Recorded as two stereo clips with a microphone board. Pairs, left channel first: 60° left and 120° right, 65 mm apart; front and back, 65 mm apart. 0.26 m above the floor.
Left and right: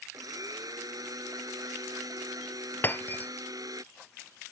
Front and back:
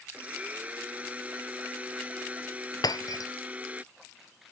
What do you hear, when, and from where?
0.1 s a blender: 110° right
2.8 s breaking glass: straight ahead